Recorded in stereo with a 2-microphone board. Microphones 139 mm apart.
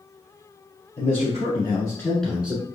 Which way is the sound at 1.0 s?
50° left (ahead or behind).